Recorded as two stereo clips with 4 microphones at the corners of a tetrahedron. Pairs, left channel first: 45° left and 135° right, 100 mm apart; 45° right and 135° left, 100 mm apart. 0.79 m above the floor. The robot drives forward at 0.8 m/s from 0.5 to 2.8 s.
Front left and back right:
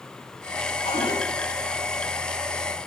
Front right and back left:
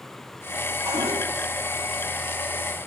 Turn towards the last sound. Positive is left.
turn(degrees=85)